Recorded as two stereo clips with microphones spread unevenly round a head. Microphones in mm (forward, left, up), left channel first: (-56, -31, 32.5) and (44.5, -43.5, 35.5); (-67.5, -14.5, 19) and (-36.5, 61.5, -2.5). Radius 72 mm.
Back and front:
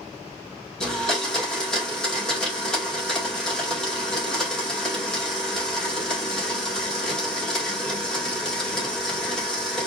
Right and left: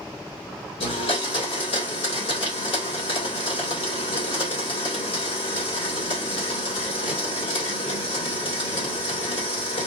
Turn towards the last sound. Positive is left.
turn(degrees=-105)